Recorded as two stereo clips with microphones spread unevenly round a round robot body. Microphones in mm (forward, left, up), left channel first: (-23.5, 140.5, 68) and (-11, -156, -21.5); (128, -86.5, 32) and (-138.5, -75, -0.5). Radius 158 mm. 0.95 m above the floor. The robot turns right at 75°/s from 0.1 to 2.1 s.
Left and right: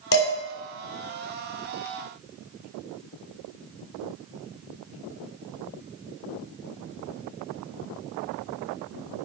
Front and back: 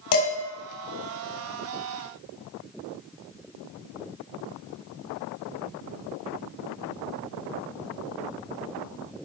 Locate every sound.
0.1 s dishes clattering: 35° left, 1.7 m; by 0.3 s 50° left, 1.7 m